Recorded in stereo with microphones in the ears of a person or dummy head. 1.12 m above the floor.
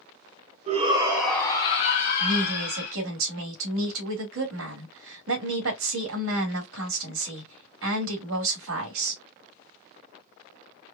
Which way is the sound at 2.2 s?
75° right (ahead or behind).